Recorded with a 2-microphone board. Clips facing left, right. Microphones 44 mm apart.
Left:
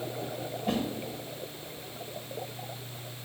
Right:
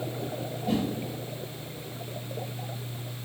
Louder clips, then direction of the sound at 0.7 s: Right 2 dB; 60° left (ahead or behind).